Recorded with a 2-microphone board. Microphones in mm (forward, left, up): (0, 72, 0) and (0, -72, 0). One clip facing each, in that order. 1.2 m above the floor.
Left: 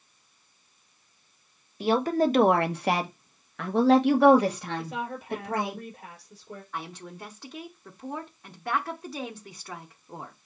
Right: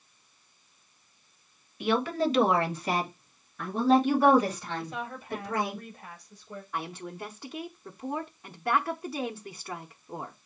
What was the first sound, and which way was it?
A woman speaking, 30° left (ahead or behind).